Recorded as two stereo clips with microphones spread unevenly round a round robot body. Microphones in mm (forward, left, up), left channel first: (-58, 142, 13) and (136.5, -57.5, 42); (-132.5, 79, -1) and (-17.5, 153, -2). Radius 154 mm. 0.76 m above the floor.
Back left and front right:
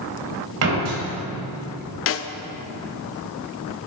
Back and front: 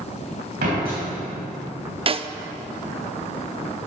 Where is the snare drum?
90° left, 0.5 m.